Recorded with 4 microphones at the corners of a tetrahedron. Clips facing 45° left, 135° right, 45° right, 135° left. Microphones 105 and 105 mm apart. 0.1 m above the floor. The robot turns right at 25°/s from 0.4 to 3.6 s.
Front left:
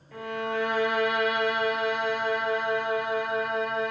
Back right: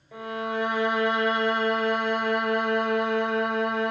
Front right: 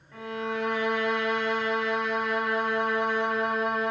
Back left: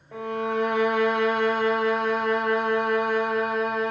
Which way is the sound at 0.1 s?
150° left.